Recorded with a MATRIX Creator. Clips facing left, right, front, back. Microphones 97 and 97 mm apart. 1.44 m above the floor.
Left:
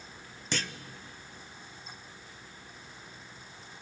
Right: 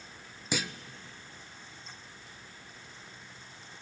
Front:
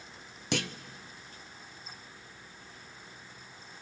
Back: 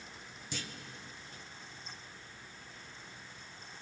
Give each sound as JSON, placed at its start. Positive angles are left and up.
{"t": 0.5, "sound": "a clunk", "azimuth_deg": -10, "distance_m": 0.7}